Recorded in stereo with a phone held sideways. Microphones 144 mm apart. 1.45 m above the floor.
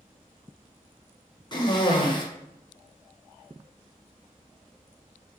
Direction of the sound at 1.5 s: 30° left (ahead or behind).